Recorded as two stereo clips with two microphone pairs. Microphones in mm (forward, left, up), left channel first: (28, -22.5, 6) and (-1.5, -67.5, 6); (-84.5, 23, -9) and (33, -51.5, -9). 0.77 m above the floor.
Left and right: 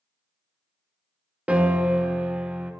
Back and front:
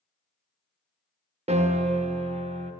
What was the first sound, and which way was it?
A piano, 60° right.